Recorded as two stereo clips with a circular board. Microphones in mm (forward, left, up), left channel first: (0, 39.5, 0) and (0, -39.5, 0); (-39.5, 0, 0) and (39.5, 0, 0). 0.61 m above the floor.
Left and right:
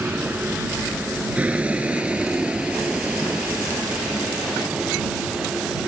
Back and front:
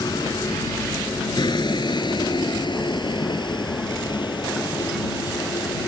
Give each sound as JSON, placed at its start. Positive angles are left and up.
{"t": 0.0, "sound": "a vehicle", "azimuth_deg": -155}